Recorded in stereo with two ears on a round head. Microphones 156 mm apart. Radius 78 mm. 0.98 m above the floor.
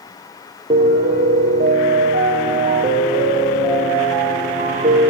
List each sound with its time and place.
0.7 s a piano: 30° right (ahead or behind), 6 m